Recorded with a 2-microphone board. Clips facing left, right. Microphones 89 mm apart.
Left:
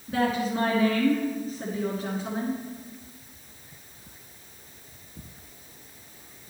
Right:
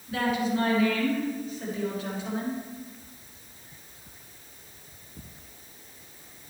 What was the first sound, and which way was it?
A woman speaking, 40° left (ahead or behind).